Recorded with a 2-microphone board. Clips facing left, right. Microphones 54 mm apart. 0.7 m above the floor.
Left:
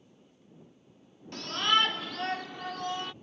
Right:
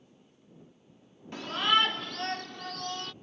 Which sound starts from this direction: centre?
A shout, at 1.3 s.